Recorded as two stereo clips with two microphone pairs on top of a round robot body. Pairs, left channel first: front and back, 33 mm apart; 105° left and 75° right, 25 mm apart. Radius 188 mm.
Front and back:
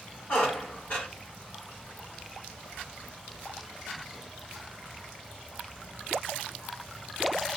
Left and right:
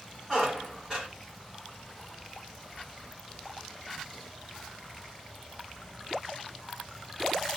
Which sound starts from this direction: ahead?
A squeak, at 0.3 s.